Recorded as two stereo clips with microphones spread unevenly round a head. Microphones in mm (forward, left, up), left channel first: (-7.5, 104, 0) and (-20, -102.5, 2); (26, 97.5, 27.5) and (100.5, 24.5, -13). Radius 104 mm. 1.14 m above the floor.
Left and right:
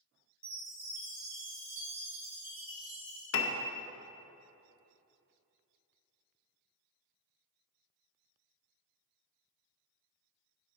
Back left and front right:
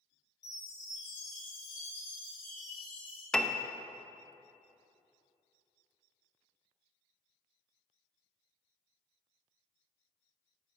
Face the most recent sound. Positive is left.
turn(degrees=50)